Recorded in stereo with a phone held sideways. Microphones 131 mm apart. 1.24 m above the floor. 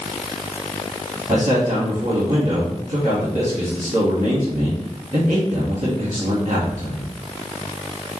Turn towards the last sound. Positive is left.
turn(degrees=-80)